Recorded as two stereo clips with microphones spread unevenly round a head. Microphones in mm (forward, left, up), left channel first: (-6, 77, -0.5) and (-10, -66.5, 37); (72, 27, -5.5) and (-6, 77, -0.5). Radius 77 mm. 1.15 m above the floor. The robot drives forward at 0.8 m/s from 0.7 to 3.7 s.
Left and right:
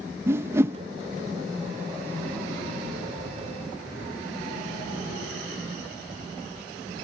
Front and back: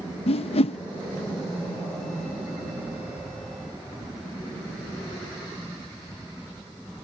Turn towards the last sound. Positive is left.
turn(degrees=-175)